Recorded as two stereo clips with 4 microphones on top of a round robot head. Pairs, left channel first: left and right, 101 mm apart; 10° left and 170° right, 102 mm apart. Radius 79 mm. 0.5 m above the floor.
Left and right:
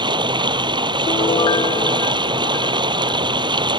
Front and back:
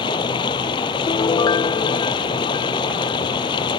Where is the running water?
50° right.